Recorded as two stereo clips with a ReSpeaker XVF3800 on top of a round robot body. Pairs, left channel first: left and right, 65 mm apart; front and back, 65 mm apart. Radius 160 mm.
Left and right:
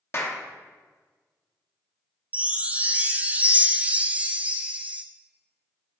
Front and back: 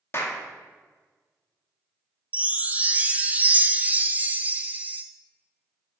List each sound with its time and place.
0.1 s a clap: 45° left, 1.4 m
2.3 s a chime: 135° right, 0.7 m